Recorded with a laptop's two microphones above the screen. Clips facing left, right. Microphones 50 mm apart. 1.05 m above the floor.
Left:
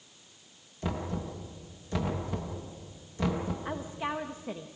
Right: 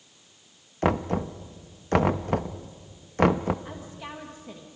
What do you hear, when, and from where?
0.8 s knocking: 60° right (ahead or behind), 0.8 m
3.6 s a woman speaking: 25° left (ahead or behind), 1.0 m